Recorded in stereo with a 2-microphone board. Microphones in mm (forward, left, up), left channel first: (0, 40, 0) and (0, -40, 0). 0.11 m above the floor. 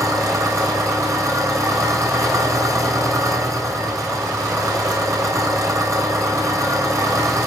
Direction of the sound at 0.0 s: 40° right (ahead or behind).